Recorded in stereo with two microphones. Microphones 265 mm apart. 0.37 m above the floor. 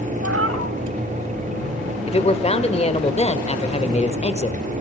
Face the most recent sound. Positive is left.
turn(degrees=25)  # may be behind; listen again after turning